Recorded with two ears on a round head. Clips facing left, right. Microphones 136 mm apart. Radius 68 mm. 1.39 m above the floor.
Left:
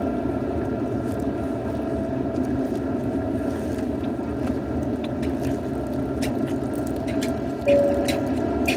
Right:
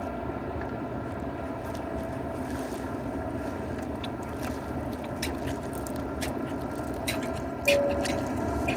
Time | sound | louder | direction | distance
0.0 | an aircraft | left 9 dB | 50° left (ahead or behind) | ?